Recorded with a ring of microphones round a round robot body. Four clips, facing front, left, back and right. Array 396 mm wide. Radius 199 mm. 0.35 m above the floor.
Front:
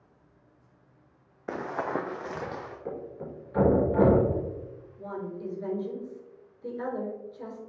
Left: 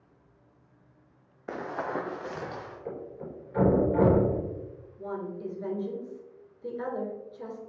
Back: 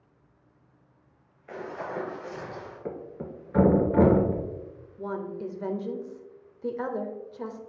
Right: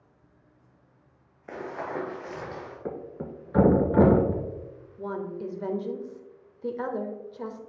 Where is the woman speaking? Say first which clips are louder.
Right 2 dB, back 3 dB; 135° right, 1.1 m.